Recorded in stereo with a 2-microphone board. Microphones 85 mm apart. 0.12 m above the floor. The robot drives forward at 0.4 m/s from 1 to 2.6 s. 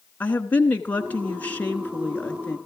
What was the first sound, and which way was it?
A woman speaking, 20° left (ahead or behind).